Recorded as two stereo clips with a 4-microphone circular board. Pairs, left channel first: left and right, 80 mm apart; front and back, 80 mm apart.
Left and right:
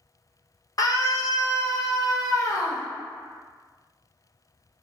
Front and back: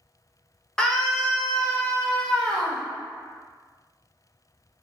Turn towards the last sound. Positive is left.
turn(degrees=80)